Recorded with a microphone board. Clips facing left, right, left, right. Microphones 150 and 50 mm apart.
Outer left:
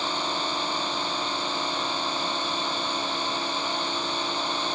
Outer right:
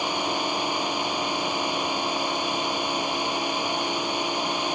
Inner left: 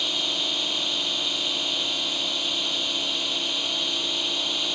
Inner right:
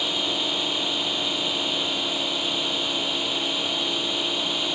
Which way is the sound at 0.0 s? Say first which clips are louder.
Outer right 3 dB, inner right 2 dB; 15° right (ahead or behind).